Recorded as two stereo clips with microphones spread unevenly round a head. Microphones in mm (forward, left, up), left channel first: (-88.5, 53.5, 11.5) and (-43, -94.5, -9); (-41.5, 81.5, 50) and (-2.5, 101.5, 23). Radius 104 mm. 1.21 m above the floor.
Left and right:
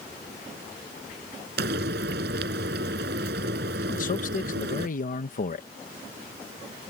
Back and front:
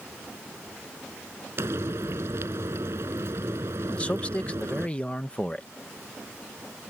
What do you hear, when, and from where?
1.6 s frying: 30° right
3.9 s a man speaking: 135° left